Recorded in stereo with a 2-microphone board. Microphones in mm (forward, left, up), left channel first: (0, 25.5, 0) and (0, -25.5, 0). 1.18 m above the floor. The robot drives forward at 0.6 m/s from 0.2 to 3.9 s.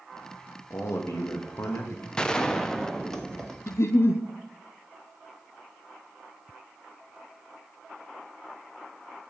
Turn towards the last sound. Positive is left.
turn(degrees=60)  # may be behind; listen again after turning